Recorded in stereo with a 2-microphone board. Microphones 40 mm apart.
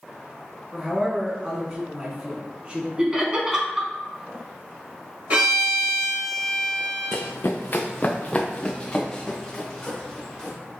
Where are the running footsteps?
75° left (ahead or behind), 0.6 m; by 10.6 s 10° left (ahead or behind), 2.0 m.